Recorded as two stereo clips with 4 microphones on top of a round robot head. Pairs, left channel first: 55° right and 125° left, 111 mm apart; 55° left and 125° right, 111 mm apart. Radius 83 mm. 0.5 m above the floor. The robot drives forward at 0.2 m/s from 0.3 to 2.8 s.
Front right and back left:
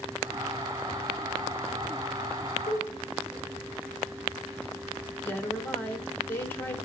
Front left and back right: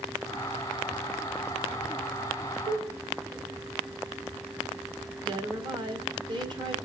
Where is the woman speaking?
120° right, 1.6 m.